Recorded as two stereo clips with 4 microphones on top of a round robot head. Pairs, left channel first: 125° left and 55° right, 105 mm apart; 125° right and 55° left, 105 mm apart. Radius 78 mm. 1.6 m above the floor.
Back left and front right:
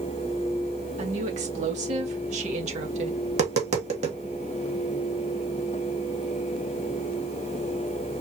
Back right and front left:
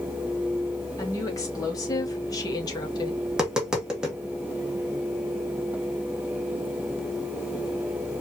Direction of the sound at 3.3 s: 30° right.